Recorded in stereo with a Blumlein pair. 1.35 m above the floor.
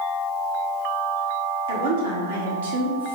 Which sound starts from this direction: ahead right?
A woman speaking, at 1.7 s.